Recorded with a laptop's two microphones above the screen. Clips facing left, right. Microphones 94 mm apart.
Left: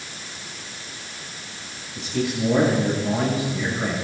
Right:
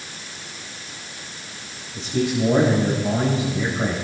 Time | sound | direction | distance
1.9 | a man speaking | 35° right (ahead or behind) | 5 m